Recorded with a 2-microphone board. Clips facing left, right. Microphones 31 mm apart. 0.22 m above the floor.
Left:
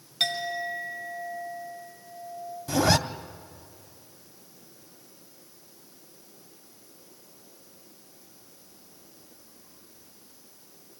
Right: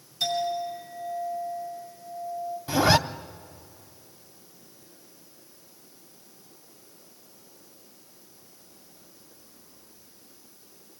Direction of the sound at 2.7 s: 25° right (ahead or behind).